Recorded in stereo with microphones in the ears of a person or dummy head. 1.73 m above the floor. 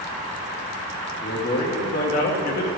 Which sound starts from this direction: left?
A man speaking, at 1.2 s.